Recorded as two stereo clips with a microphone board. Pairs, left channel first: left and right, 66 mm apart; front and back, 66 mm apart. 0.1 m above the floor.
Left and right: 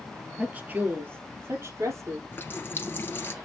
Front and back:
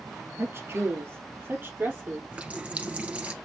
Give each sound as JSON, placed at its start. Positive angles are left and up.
{"t": 0.4, "sound": "a woman speaking", "azimuth_deg": -150, "distance_m": 1.8}
{"t": 2.3, "sound": "a running tap", "azimuth_deg": 120, "distance_m": 1.2}